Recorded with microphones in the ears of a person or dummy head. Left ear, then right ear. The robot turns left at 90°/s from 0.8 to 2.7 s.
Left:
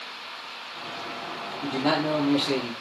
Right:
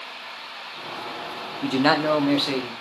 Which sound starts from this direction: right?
A man speaking, at 1.6 s.